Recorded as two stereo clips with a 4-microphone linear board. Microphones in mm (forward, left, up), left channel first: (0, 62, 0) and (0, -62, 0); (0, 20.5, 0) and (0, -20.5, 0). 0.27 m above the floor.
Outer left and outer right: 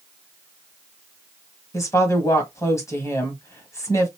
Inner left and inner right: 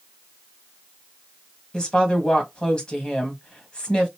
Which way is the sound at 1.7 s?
25° left (ahead or behind).